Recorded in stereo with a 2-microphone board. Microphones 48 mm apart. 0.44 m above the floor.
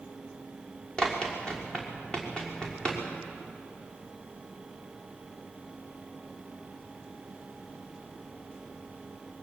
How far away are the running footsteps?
About 4.5 m.